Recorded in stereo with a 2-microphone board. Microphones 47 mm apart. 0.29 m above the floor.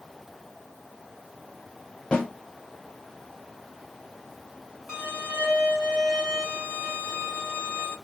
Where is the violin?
25° right (ahead or behind), 1.2 m.